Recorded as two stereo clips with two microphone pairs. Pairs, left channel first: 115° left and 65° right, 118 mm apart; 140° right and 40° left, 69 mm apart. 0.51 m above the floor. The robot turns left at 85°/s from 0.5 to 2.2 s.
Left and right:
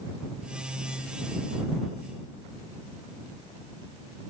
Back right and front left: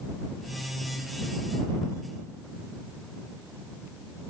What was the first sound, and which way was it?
Only background noise.